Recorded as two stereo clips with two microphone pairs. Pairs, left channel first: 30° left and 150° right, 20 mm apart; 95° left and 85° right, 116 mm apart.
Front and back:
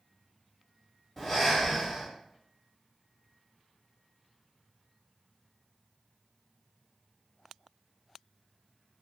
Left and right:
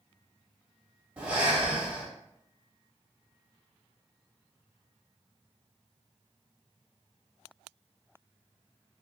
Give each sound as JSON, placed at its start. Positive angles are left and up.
{"t": 1.2, "sound": "breathing", "azimuth_deg": -45, "distance_m": 1.5}